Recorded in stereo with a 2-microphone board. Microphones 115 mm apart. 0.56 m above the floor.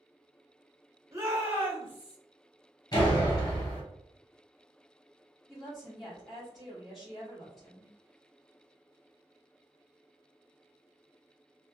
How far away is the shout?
About 1.2 m.